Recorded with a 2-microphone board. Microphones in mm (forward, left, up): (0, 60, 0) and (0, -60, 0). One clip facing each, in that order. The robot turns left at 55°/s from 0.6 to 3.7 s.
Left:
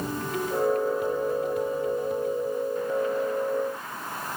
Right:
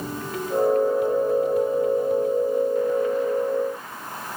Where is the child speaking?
I don't hear a child speaking.